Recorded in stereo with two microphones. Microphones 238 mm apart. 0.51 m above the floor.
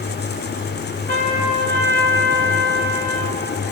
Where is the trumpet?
55° right (ahead or behind), 2 m.